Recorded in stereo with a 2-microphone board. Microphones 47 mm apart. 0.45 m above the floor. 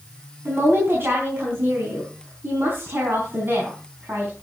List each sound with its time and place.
0.5 s a woman speaking: 50° right (ahead or behind), 4.5 m